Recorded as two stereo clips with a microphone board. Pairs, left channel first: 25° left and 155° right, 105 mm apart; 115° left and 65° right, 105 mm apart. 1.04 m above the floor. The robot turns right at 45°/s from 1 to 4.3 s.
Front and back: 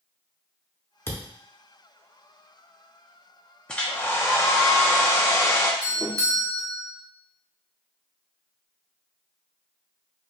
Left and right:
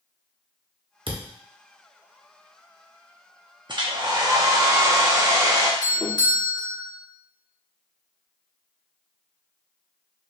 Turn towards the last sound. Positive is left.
turn(degrees=155)